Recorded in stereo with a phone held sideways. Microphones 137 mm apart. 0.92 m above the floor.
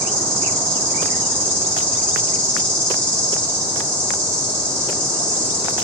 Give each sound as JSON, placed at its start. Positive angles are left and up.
{"t": 0.0, "sound": "an insect", "side_deg": 15, "distance_m": 3.5}